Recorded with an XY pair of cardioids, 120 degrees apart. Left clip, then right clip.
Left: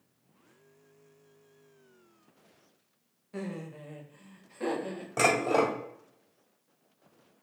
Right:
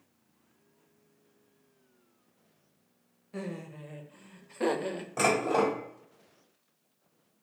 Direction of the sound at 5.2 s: 25° left.